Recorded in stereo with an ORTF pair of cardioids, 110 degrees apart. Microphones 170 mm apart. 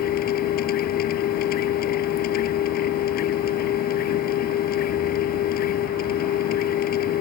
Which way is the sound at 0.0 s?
65° left.